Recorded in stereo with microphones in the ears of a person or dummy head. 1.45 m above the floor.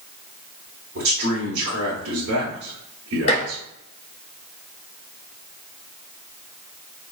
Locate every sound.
0.9 s a man speaking: 70° right (ahead or behind), 1.1 m
3.3 s dishes clattering: 40° left (ahead or behind), 1.3 m